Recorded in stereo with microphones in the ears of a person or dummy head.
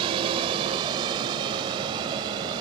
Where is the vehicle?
25° right (ahead or behind).